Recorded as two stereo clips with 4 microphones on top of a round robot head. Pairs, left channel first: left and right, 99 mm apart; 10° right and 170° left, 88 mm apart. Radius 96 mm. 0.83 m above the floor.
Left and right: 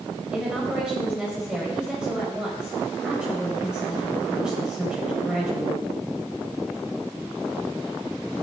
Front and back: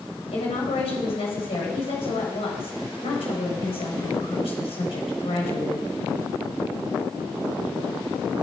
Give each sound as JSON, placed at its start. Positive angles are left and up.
{"t": 0.3, "sound": "a woman speaking", "azimuth_deg": -5, "distance_m": 3.5}